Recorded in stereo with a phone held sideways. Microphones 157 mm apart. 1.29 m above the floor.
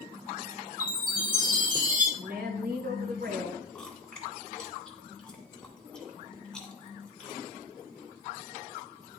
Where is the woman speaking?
75° right (ahead or behind), 1.1 m.